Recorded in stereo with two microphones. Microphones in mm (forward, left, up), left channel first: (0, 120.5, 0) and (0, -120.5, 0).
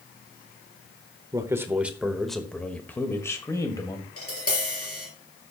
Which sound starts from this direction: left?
Tapping, at 4.2 s.